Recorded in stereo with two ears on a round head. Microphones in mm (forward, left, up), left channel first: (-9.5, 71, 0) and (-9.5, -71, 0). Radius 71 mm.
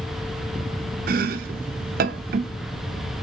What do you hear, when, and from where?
1.1 s chopping: 65° right (ahead or behind), 0.6 m